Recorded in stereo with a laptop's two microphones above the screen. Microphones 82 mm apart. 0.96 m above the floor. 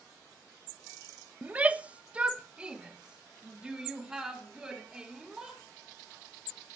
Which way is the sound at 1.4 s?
20° right (ahead or behind).